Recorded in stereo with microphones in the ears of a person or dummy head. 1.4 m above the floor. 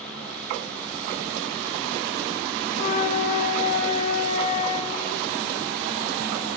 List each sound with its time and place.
2.7 s a flute: 40° left (ahead or behind), 0.6 m